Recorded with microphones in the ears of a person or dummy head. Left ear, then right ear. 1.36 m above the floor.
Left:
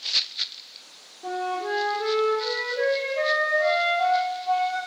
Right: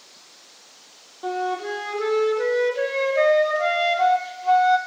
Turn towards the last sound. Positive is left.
turn(degrees=-50)  # may be behind; listen again after turning